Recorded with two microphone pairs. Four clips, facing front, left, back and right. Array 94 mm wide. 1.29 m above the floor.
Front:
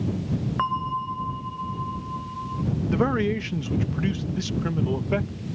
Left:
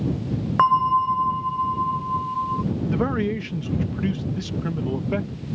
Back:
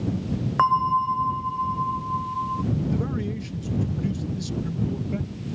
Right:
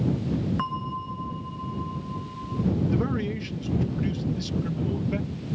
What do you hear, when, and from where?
0.6 s a bell: 115° left
2.9 s a man speaking: 35° left